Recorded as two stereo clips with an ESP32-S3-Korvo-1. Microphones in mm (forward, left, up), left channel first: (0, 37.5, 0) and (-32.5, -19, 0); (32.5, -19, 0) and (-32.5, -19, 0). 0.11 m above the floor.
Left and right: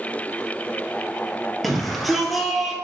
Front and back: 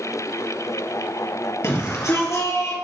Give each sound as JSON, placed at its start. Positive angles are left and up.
{"t": 1.6, "sound": "a shout", "azimuth_deg": -30, "distance_m": 2.5}